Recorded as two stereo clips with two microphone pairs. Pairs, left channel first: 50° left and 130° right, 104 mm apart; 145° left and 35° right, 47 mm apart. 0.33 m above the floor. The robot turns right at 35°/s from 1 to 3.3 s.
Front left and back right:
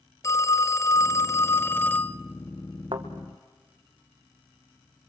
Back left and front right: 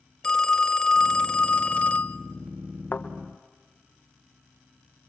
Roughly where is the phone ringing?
Left.